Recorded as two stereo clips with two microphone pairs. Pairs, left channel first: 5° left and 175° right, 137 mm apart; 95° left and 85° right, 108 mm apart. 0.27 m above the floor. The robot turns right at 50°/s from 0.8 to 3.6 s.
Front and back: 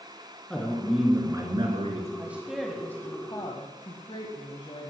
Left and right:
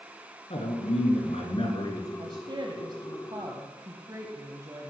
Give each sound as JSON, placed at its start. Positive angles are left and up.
{"t": 0.5, "sound": "a man speaking", "azimuth_deg": 90, "distance_m": 3.5}
{"t": 2.2, "sound": "a woman speaking", "azimuth_deg": -105, "distance_m": 1.5}